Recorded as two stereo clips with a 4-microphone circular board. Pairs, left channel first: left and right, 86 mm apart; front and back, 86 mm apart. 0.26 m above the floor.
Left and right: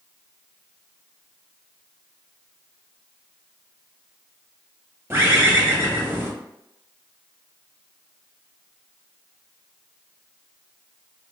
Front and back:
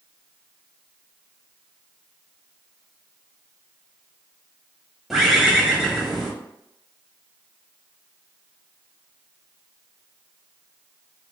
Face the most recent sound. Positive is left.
turn(degrees=-95)